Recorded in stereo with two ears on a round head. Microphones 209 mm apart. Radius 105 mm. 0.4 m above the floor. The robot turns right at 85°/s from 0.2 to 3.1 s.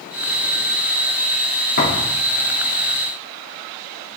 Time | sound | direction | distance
1.8 | a thud | 40° left (ahead or behind) | 3 m